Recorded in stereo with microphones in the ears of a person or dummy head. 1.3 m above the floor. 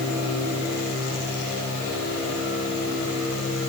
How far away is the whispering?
I don't hear whispering.